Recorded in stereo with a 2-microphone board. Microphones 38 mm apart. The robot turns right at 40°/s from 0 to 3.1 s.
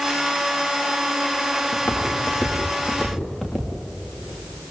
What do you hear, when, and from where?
1.7 s footsteps: 60° left (ahead or behind), 7 m; by 3.7 s 15° left (ahead or behind), 7.5 m